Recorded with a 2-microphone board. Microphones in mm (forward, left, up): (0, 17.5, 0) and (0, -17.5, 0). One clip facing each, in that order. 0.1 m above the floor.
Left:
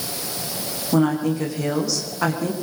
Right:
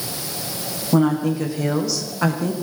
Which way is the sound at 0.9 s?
5° right (ahead or behind).